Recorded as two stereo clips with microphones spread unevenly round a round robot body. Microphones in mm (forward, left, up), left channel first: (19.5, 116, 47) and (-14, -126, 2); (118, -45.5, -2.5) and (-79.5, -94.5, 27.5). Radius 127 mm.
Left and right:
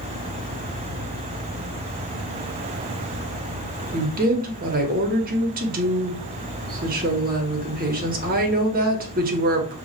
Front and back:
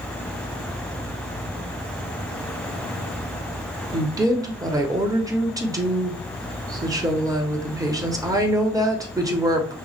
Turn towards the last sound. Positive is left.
turn(degrees=-90)